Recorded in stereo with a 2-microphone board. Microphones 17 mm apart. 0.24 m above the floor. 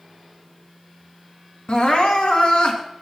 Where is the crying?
55° left (ahead or behind), 3 m.